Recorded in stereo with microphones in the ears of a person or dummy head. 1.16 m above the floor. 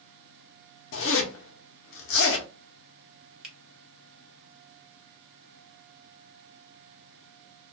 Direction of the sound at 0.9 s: 60° left (ahead or behind).